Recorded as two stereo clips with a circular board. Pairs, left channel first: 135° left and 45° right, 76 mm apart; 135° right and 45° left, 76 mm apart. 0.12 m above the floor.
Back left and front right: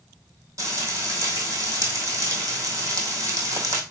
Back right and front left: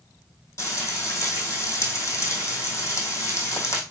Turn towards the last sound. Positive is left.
turn(degrees=-85)